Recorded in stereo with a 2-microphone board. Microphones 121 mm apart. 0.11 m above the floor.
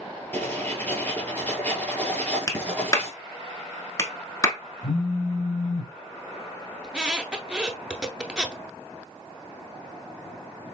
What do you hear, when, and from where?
0.3 s writing: 15° left (ahead or behind), 1.3 m
2.5 s a clap: 25° left (ahead or behind), 0.9 m
4.8 s a phone buzzing: 70° left (ahead or behind), 0.7 m
6.8 s a squeak: 5° right (ahead or behind), 0.8 m